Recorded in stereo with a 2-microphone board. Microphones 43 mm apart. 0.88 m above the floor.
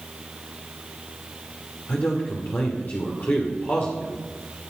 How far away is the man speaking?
About 2 m.